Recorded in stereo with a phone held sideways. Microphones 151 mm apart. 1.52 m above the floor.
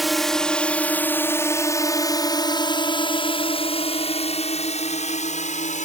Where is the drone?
Centre (ahead or behind); by 5.9 s 50° left (ahead or behind).